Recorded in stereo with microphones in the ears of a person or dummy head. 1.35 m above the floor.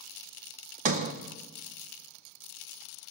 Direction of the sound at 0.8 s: 35° right (ahead or behind).